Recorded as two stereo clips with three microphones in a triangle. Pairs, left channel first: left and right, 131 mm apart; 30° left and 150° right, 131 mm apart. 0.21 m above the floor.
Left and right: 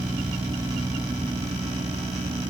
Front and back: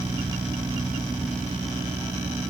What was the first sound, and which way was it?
Only background noise.